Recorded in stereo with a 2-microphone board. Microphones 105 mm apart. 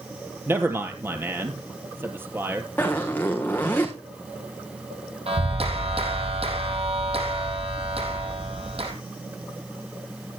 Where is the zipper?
15° left (ahead or behind), 3 m.